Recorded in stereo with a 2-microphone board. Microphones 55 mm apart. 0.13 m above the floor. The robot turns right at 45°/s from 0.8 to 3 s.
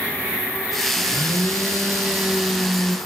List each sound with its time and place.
1.0 s a blender: 85° right, 2.5 m; by 3.0 s 5° left, 2.5 m